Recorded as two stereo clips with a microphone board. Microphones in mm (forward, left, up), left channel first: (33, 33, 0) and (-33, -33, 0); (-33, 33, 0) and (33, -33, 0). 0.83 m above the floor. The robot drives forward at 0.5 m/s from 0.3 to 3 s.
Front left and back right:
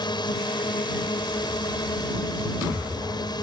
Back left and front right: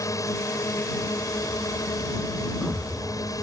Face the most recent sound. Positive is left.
turn(degrees=85)